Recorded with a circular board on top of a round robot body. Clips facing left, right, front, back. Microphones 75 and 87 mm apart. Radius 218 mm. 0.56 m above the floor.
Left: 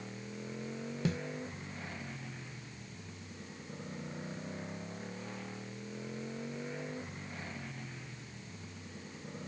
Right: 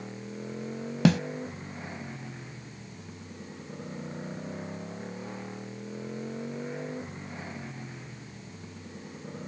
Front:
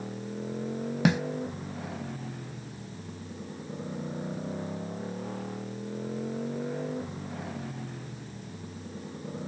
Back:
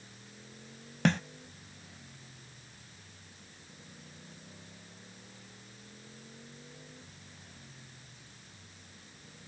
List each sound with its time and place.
0.0 s a motorcycle: 20° right
1.1 s a snare drum: 80° right